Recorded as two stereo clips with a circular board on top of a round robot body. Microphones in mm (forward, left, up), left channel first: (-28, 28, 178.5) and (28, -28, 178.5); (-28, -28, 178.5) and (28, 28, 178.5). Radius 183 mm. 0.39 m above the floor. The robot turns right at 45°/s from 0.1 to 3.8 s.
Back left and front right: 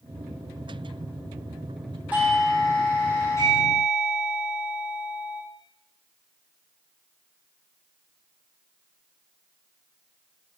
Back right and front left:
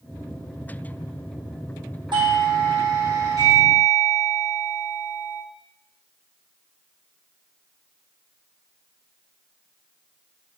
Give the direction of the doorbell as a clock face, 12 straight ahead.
11 o'clock.